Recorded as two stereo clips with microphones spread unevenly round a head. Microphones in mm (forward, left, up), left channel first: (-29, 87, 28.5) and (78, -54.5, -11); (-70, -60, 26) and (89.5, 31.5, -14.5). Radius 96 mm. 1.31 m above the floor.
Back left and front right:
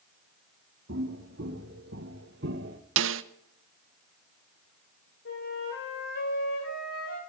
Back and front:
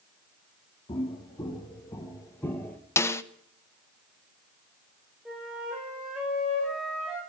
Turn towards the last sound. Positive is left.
turn(degrees=115)